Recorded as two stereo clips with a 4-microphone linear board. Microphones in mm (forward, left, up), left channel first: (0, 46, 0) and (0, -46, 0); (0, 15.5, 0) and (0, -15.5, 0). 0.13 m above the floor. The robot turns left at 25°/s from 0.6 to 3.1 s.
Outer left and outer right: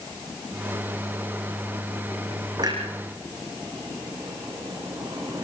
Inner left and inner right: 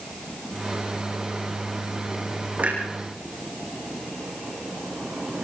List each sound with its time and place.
2.6 s a clunk: 50° right (ahead or behind), 6.5 m; by 5.4 s 35° right (ahead or behind), 6.5 m